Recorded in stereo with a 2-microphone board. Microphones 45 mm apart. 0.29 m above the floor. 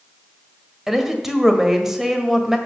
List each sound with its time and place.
0.9 s a woman speaking: 10° right (ahead or behind), 1.4 m